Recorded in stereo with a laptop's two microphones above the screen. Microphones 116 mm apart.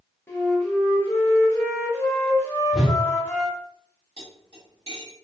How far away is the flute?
About 0.8 m.